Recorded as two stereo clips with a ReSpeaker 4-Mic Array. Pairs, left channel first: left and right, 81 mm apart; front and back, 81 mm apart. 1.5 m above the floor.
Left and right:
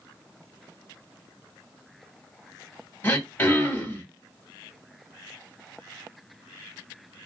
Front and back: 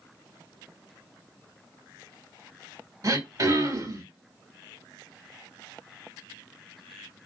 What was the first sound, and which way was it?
Throat clearing, 155° left.